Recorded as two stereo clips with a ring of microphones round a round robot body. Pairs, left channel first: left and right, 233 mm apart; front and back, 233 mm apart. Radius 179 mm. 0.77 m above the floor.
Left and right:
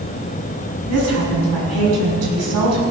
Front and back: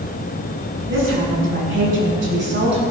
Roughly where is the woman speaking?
Behind right.